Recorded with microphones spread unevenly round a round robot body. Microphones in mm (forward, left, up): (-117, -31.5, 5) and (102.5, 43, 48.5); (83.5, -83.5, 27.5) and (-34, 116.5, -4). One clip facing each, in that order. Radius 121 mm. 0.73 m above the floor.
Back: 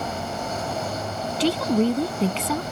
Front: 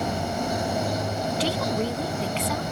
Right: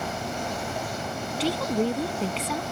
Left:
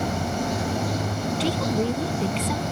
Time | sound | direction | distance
0.0 | running water | 95° left | ?
1.4 | a woman speaking | 150° right | ?